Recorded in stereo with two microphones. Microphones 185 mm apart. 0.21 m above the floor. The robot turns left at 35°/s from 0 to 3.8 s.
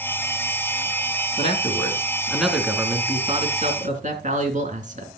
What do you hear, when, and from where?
1.4 s a man speaking: 35° left, 3 m; by 5.1 s 50° right, 3 m